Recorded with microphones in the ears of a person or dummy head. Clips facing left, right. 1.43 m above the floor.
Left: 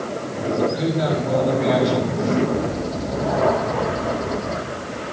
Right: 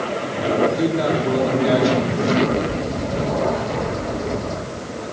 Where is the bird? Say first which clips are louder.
Right 1 dB; 45° right (ahead or behind), 8.5 m.